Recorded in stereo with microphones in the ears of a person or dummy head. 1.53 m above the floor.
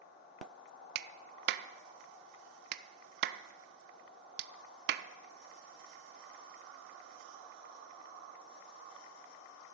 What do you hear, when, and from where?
0.9 s a clap: 60° right (ahead or behind), 0.5 m